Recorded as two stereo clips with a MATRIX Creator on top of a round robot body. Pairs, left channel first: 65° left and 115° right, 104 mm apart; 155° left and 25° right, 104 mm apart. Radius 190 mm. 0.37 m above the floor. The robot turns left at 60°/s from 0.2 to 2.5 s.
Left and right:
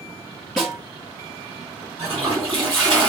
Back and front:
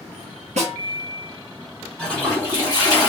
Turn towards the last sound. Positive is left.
turn(degrees=-150)